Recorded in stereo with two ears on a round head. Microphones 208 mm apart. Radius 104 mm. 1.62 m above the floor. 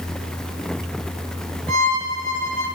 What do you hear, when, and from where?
1.7 s a violin: 80° right, 4 m